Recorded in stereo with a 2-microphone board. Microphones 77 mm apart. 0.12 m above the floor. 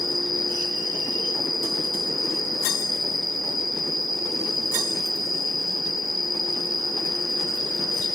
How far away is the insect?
About 2 m.